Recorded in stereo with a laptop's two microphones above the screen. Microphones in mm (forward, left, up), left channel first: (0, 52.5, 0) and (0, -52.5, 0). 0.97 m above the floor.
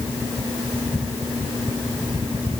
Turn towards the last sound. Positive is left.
No sound to turn to.